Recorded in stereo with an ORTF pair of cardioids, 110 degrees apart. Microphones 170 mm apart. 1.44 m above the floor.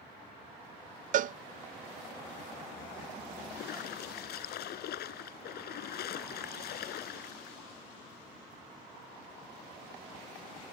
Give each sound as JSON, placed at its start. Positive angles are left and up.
{"t": 1.1, "sound": "a cowbell", "azimuth_deg": -50}
{"t": 3.5, "sound": "a splash", "azimuth_deg": 70}